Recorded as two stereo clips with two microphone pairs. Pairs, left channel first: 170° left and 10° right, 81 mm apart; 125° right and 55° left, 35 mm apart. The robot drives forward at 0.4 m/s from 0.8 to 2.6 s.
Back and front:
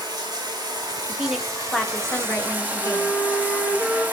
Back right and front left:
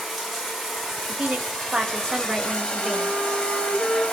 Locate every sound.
0.0 s running water: 35° right, 1.3 m; by 4.1 s 75° right, 0.9 m
1.1 s a woman speaking: 55° left, 0.8 m; by 3.2 s 125° left, 0.8 m
2.8 s a flute: 110° left, 3 m